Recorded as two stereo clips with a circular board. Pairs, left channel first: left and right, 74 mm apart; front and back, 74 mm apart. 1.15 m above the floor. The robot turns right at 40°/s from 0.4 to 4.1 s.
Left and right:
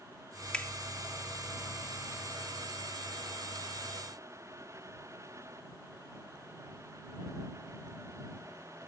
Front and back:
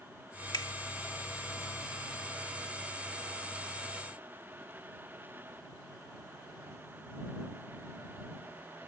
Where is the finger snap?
15° left; by 0.7 s 20° left.